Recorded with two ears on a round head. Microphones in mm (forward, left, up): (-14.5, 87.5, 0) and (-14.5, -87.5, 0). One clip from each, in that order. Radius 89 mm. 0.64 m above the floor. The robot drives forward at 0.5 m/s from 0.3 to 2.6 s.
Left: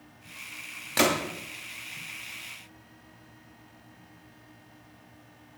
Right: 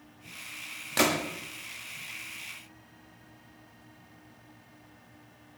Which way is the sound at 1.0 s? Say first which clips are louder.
Left 2 dB; 5° left (ahead or behind).